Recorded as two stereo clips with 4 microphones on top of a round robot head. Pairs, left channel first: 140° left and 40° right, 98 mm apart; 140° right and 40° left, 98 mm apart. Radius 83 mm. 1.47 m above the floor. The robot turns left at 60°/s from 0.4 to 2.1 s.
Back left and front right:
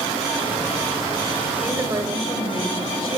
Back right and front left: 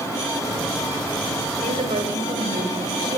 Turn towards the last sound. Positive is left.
turn(degrees=10)